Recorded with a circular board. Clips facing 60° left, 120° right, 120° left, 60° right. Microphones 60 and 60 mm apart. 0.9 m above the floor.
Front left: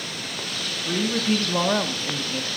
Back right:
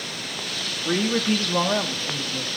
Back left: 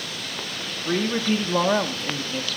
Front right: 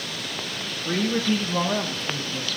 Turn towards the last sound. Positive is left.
turn(degrees=100)